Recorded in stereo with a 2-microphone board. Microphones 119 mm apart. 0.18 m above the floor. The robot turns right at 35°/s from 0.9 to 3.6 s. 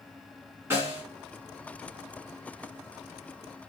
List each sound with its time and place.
0.7 s a snare drum: 25° right (ahead or behind), 1.9 m; by 1.0 s 20° right (ahead or behind), 1.9 m